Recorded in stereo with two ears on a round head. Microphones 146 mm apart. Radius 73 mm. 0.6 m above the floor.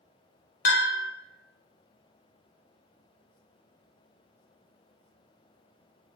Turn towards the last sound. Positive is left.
turn(degrees=60)  # may be behind; listen again after turning